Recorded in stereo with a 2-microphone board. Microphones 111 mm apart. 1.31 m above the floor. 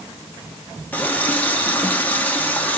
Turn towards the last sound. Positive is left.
turn(degrees=15)  # may be behind; listen again after turning